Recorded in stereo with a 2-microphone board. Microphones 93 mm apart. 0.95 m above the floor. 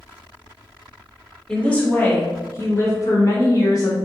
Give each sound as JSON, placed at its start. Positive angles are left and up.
{"t": 1.5, "sound": "a woman speaking", "side_deg": 10, "distance_m": 1.0}